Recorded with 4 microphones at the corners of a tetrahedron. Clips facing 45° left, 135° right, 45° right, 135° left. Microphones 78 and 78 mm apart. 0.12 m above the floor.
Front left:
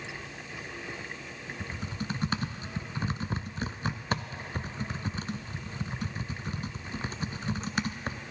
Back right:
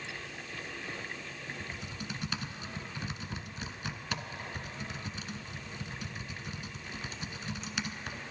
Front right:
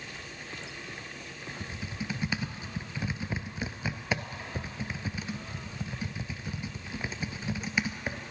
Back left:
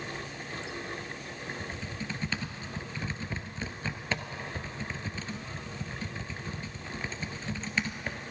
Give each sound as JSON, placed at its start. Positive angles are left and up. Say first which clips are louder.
{"t": 1.6, "sound": "typing on a keyboard", "louder": "front left 5 dB, even", "azimuth_deg": 25, "distance_m": 0.6}